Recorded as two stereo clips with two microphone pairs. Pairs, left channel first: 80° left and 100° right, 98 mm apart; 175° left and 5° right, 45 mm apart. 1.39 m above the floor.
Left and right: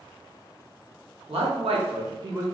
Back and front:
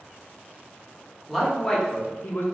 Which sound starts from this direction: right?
A man speaking, at 1.3 s.